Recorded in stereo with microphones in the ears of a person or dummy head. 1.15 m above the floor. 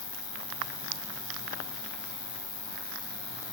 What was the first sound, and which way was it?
An insect, 60° left (ahead or behind).